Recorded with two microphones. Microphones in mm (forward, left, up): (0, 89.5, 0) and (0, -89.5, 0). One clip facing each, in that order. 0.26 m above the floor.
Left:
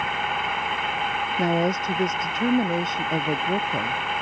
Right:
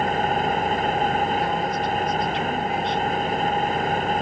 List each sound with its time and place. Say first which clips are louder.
0.0 s an engine running: right 7 dB; 45° right (ahead or behind)
1.4 s a woman speaking: left 2 dB; 45° left (ahead or behind)